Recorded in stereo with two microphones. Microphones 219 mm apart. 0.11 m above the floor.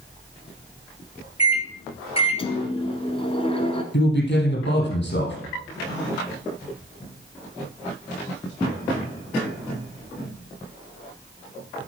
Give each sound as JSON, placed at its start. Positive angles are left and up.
{"t": 1.4, "sound": "a microwave", "side_deg": 25, "distance_m": 0.9}
{"t": 3.9, "sound": "a man speaking", "side_deg": 50, "distance_m": 3.5}